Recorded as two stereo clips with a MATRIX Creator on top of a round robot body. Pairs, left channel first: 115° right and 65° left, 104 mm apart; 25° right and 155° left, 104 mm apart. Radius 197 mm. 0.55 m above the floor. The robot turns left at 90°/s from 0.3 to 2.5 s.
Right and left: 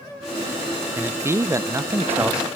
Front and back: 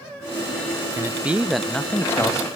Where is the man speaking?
125° left, 0.6 m; by 2.5 s 10° right, 0.6 m.